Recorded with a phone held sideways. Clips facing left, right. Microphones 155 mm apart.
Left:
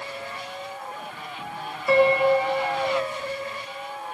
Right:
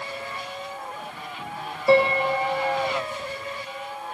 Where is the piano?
30° right (ahead or behind), 0.5 m.